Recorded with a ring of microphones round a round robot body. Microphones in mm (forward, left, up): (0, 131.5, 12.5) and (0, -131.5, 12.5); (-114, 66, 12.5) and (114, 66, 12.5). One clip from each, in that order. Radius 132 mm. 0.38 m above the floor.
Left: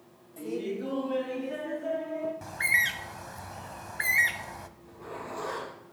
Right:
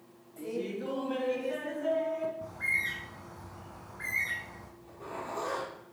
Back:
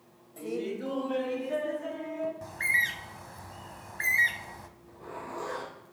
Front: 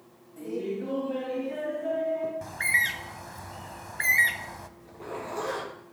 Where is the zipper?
Straight ahead, 7 m.